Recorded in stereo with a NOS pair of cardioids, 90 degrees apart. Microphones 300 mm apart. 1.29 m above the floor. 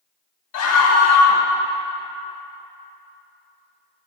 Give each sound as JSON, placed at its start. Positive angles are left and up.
{"t": 0.5, "sound": "a scream", "azimuth_deg": 70, "distance_m": 1.2}